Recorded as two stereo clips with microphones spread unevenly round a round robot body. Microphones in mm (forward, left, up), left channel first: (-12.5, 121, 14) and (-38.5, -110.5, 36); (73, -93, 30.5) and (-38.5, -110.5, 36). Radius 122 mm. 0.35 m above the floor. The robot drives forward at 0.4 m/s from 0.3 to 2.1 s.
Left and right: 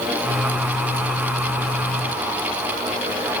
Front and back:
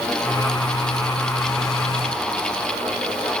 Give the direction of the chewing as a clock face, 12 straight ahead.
No chewing in this recording.